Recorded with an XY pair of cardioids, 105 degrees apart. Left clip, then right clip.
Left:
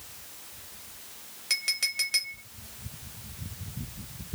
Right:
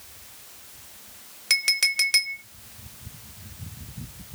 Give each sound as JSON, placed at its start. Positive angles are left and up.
{"t": 1.5, "sound": "a clink", "azimuth_deg": -50, "distance_m": 0.6}